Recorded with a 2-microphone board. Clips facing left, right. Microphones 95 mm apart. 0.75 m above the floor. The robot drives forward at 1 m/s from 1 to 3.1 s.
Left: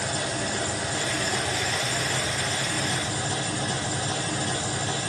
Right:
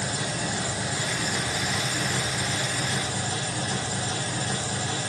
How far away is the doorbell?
I don't hear a doorbell.